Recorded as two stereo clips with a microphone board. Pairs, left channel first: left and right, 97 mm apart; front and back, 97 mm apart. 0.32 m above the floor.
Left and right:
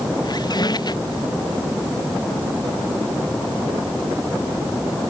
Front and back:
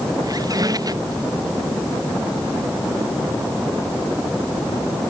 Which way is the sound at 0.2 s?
130° left.